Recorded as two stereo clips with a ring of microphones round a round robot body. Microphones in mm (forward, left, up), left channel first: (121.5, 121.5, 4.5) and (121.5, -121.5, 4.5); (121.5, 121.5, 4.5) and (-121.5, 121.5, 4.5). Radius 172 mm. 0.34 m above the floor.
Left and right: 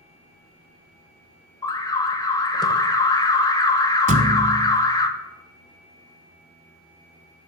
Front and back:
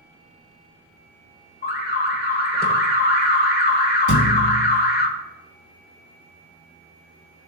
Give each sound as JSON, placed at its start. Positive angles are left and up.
{"t": 1.6, "sound": "an alarm", "azimuth_deg": 25, "distance_m": 1.2}
{"t": 4.1, "sound": "a thud", "azimuth_deg": -30, "distance_m": 1.0}